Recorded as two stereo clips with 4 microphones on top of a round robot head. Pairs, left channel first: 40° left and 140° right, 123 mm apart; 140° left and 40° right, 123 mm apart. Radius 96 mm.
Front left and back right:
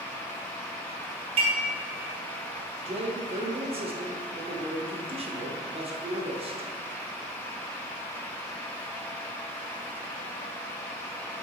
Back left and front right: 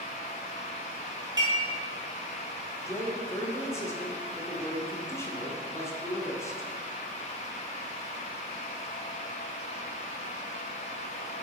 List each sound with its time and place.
1.4 s dishes clattering: 100° right, 2.5 m
2.9 s a man speaking: 155° right, 1.6 m